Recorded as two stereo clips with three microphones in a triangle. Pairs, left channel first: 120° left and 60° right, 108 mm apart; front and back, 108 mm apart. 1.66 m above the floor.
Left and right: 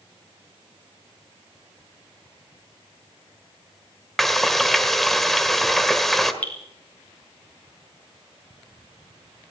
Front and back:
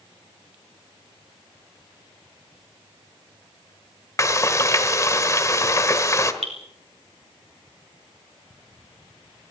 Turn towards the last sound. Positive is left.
turn(degrees=-165)